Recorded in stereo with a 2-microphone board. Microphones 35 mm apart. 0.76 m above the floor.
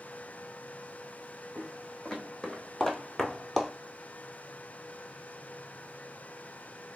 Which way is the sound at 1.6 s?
15° left (ahead or behind).